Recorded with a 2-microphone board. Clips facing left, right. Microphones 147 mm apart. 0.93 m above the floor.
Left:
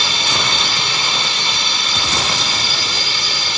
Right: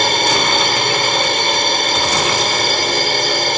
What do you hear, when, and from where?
0.0 s a drone: 50° right (ahead or behind)